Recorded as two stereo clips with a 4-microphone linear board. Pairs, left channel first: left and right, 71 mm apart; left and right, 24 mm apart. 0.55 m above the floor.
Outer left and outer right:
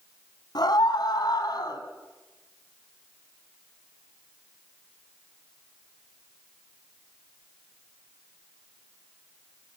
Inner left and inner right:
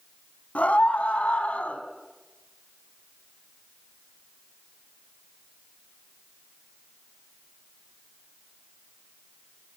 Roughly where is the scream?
Left.